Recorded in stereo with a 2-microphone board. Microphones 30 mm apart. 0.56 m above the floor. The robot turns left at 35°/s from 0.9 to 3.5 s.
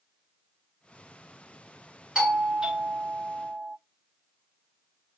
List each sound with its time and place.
2.1 s a doorbell: 25° right (ahead or behind), 1.2 m; by 3.8 s 20° right (ahead or behind), 1.2 m